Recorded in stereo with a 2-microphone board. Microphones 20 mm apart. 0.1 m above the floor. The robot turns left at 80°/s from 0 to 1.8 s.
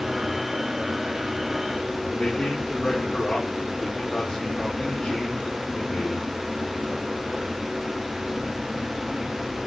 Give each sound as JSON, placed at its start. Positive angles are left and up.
{"t": 2.1, "sound": "a man speaking", "side_deg": 75, "distance_m": 6.5}